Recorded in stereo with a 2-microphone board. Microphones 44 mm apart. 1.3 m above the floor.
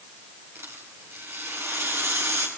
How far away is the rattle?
About 4.5 m.